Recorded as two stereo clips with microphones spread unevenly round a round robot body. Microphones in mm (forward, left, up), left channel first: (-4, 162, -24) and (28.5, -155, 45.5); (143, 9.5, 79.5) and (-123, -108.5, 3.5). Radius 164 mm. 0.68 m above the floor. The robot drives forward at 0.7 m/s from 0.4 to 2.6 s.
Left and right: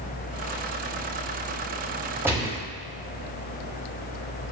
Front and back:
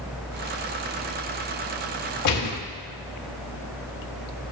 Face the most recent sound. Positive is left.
turn(degrees=10)